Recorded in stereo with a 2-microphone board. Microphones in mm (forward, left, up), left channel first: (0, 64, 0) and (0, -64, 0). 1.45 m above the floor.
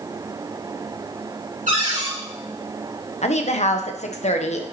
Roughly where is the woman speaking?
Left.